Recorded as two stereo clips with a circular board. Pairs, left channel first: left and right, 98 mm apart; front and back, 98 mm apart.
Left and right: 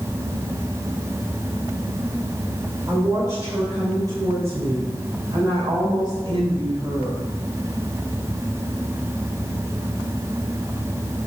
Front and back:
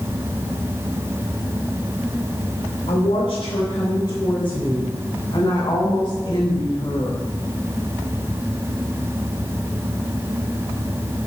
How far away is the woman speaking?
About 3 m.